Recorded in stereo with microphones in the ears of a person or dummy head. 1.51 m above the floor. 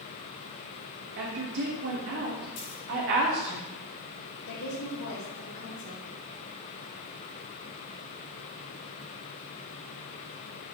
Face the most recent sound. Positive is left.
turn(degrees=85)